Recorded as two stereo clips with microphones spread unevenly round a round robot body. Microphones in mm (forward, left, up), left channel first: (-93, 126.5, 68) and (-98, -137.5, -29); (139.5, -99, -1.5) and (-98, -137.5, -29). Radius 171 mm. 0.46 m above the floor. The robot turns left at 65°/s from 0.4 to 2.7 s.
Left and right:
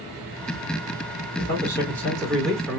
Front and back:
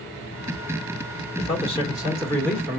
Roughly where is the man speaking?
Ahead.